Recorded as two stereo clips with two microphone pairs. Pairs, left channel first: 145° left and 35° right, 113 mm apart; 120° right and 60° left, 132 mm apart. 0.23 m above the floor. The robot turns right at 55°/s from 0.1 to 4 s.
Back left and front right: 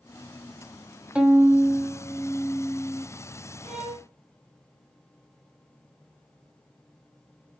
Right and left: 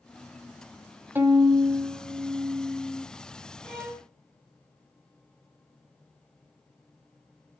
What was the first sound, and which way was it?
A violin, 25° left.